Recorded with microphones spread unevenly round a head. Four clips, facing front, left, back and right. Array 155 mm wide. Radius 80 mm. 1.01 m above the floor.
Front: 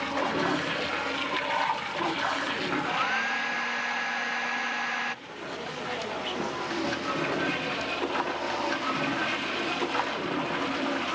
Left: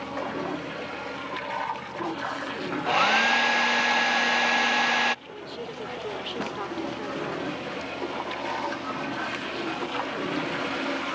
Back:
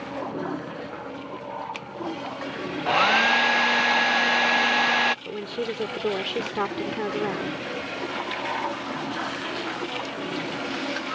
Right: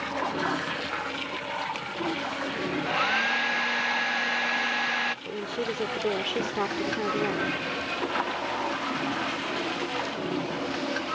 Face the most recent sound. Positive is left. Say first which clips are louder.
# right 6 dB, back 7 dB
turn(degrees=-150)